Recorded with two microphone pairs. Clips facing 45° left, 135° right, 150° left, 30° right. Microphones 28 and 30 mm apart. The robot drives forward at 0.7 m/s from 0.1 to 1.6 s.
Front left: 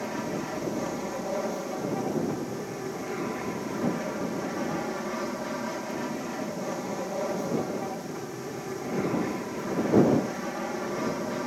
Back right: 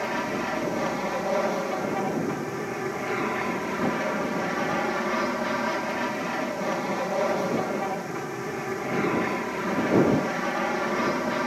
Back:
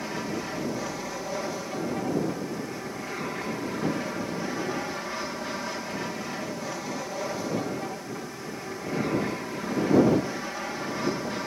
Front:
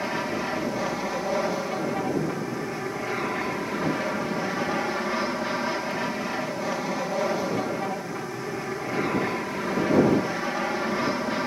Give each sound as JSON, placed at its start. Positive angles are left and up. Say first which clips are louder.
{"t": 0.0, "sound": "an aircraft", "louder": "back right 4 dB, front 4 dB", "azimuth_deg": -95}